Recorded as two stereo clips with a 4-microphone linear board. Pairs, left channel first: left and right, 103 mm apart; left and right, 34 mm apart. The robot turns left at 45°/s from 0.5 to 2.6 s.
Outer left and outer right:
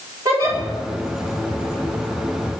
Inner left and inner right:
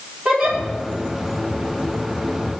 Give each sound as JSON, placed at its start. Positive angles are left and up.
{"t": 0.2, "sound": "a giggle", "side_deg": -35, "distance_m": 3.0}